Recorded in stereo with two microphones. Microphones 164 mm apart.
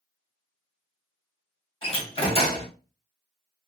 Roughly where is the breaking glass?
I don't hear breaking glass.